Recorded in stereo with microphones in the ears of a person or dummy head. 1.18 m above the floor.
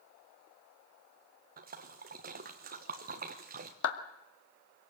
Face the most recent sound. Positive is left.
turn(degrees=65)  # may be behind; listen again after turning